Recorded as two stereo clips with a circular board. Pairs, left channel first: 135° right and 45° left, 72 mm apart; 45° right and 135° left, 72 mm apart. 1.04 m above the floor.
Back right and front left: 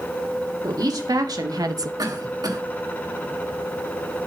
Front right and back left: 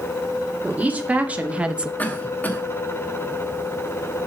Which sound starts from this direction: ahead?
A cough, at 2.0 s.